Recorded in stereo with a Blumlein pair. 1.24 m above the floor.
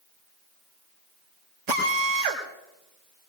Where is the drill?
45° right, 4.5 m.